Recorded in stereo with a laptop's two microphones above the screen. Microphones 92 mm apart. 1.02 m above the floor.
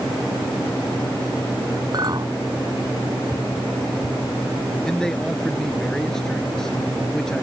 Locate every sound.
1.9 s a clink: 45° right (ahead or behind)
4.8 s a man speaking: 5° left (ahead or behind)